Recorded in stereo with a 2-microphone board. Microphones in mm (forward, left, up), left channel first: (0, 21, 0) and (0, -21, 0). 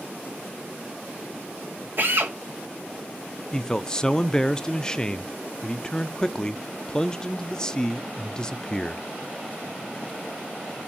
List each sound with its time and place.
2.0 s a drill: 50° right (ahead or behind), 2.5 m
3.5 s a man speaking: 15° left (ahead or behind), 0.5 m